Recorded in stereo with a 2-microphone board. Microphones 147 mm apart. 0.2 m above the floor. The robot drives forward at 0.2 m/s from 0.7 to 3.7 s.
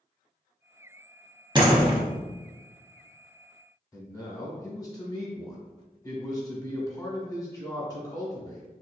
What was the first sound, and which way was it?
A door slam, 30° right (ahead or behind).